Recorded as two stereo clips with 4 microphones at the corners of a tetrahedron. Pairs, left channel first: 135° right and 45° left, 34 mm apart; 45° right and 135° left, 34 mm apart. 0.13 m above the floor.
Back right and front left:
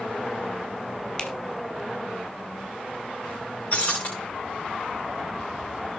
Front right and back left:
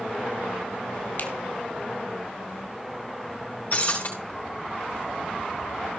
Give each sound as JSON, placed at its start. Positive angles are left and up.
{"t": 1.2, "sound": "a finger snap", "azimuth_deg": -70, "distance_m": 2.5}
{"t": 3.7, "sound": "breaking glass", "azimuth_deg": -85, "distance_m": 5.5}